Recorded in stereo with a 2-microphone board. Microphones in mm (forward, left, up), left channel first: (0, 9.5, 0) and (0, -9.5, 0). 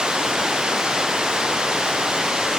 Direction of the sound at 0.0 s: 65° right (ahead or behind).